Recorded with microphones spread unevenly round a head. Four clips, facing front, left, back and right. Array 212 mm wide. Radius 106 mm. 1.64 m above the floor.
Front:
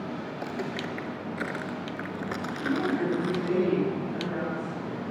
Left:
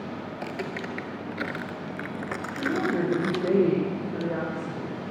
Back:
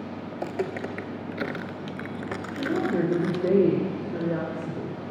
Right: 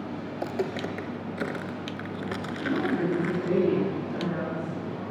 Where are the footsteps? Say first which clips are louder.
Right 6 dB, back 7 dB; 130° right, 2.5 m; by 3.5 s 65° left, 1.7 m.